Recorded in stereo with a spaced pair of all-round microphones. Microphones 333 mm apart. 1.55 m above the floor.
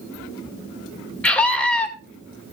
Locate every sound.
1.2 s a scream: 5° left (ahead or behind), 2.5 m